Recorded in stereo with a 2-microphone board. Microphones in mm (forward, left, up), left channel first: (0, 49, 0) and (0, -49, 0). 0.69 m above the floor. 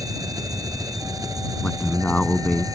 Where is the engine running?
35° right (ahead or behind).